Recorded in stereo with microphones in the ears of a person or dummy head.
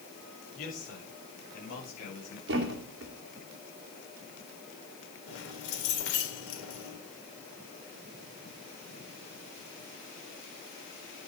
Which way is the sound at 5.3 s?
75° left (ahead or behind).